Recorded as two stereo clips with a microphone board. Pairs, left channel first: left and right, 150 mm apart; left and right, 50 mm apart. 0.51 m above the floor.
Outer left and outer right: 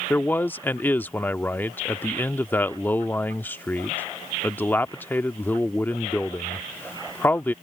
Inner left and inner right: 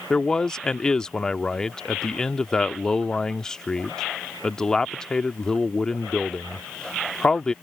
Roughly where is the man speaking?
Centre.